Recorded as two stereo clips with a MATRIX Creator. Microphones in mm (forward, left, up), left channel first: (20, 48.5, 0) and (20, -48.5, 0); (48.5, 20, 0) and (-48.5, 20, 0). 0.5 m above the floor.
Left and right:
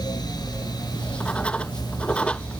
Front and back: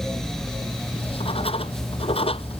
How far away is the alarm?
I don't hear an alarm.